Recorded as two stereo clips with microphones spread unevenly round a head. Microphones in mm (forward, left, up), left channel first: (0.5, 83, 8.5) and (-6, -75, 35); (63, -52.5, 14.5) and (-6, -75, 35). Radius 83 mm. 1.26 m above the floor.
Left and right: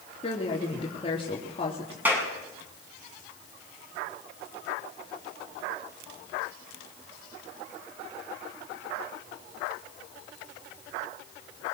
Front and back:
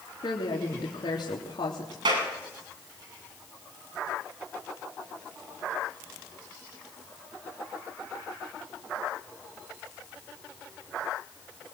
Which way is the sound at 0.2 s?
35° left.